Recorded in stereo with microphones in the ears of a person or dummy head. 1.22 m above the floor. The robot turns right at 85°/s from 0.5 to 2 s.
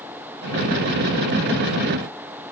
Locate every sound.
Only background noise.